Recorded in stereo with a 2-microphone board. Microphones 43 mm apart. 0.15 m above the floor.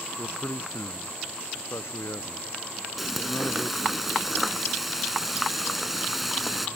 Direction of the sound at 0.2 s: 80° left.